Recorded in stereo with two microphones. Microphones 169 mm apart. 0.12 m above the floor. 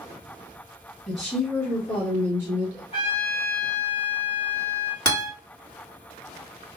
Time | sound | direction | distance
1.1 | a woman speaking | centre (ahead or behind) | 2.0 m
2.9 | a trumpet | 35° left (ahead or behind) | 1.8 m
5.0 | a guitar | 25° left (ahead or behind) | 2.0 m